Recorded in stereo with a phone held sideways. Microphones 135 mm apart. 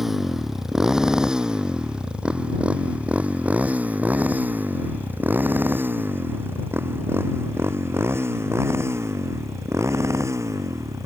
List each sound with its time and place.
0.0 s a motorcycle: centre (ahead or behind); by 11.1 s 20° right (ahead or behind)